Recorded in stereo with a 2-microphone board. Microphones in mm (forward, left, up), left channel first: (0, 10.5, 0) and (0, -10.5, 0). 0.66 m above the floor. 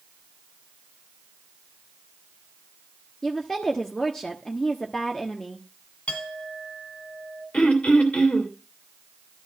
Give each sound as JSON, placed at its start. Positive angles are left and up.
{"t": 3.2, "sound": "a woman speaking", "side_deg": 15, "distance_m": 1.1}
{"t": 6.1, "sound": "a clink", "side_deg": 75, "distance_m": 3.0}
{"t": 7.5, "sound": "throat clearing", "side_deg": 70, "distance_m": 2.5}